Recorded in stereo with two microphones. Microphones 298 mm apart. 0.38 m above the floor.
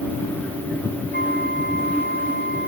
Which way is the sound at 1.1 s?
35° right (ahead or behind).